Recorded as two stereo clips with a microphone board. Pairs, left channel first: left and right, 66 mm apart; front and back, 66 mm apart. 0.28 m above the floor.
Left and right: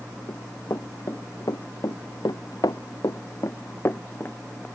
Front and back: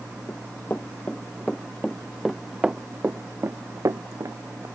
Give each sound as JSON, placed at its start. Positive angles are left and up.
{"t": 0.3, "sound": "running footsteps", "azimuth_deg": 50}